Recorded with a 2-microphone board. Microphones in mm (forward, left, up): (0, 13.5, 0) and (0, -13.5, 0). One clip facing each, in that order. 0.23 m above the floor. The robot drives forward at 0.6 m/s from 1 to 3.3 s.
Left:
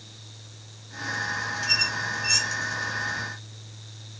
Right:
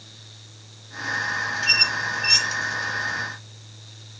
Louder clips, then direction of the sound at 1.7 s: Right 5 dB; 60° right (ahead or behind).